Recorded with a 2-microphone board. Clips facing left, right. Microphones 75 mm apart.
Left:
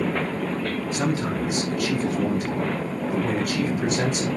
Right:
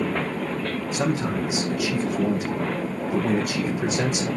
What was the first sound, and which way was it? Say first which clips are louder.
A man speaking: right 2 dB; 5° right (ahead or behind).